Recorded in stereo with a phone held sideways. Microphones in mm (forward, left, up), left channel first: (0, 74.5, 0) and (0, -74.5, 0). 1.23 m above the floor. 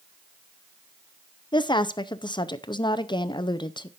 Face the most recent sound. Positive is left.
turn(degrees=30)  # may be behind; listen again after turning